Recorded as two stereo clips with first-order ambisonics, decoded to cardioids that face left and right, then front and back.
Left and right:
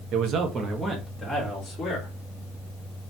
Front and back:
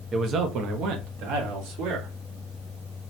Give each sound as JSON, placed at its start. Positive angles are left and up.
{"t": 0.1, "sound": "a man speaking", "azimuth_deg": -115, "distance_m": 0.5}